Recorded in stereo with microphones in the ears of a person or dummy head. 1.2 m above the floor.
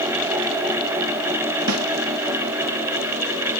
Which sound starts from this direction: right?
A snare drum, at 1.7 s.